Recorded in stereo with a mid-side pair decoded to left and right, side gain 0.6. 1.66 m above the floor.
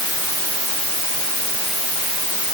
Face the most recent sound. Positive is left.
No sound to turn to.